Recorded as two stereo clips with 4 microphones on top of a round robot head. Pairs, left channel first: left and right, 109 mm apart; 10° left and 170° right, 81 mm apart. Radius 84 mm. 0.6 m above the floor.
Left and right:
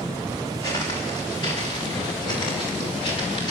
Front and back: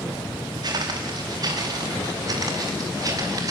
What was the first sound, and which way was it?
Footsteps, 155° left.